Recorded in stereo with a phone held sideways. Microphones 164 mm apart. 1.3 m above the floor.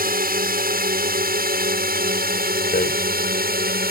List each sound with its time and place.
0.0 s a drone: 65° right (ahead or behind); by 3.9 s 70° right (ahead or behind)
2.7 s a rattle: 70° left (ahead or behind)